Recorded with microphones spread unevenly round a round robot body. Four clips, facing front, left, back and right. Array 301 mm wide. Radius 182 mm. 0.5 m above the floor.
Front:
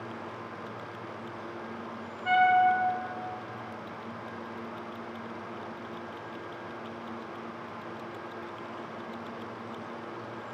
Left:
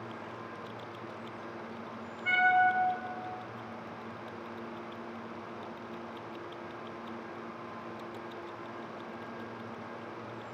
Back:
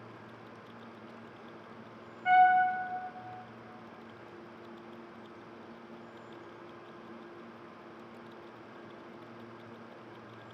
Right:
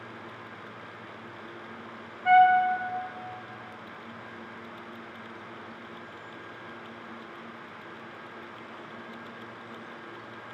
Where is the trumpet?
155° right, 0.6 m.